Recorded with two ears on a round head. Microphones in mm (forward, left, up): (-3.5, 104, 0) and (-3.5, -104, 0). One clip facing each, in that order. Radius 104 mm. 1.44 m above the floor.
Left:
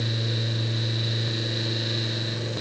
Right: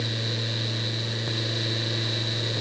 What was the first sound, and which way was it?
Only background noise.